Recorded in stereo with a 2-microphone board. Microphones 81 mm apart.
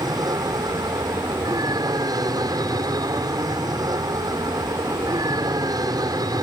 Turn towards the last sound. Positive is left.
turn(degrees=-55)  # may be behind; listen again after turning